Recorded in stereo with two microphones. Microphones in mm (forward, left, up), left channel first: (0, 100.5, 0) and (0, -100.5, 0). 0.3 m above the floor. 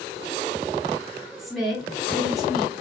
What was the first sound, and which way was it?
A woman speaking, centre (ahead or behind).